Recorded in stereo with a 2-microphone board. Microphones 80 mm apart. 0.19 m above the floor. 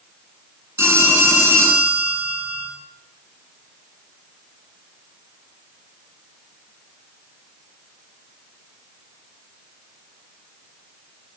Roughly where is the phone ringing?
Right.